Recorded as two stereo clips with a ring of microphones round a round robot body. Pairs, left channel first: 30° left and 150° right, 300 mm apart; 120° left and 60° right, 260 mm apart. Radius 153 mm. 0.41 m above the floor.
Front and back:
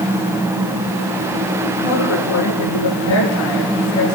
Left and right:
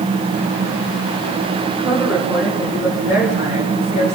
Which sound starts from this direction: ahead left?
A woman speaking, at 1.8 s.